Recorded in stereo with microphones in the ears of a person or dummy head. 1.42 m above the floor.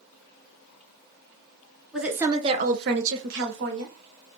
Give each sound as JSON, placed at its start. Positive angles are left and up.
{"t": 1.9, "sound": "a woman speaking", "side_deg": 0, "distance_m": 0.7}